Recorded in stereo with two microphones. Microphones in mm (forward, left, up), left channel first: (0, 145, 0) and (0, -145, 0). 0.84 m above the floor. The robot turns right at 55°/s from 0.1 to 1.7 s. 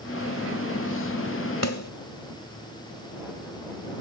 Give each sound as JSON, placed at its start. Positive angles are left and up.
{"t": 1.6, "sound": "a snare drum", "side_deg": 60}